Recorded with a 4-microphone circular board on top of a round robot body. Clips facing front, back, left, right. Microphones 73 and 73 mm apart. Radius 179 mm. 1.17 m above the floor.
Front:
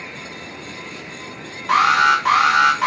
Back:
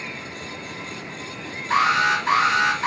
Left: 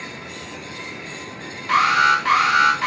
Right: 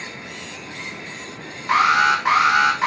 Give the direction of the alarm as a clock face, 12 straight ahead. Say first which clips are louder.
Front 5 dB, even; 1 o'clock.